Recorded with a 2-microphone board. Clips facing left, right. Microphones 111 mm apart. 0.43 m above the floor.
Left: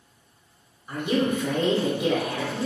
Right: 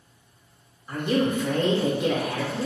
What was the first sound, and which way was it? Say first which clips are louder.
A woman speaking: even; 5° left (ahead or behind).